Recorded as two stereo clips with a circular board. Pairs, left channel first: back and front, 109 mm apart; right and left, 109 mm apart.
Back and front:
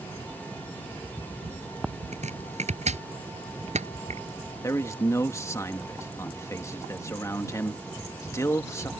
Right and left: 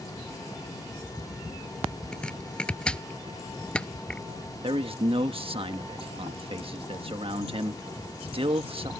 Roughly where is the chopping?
Ahead.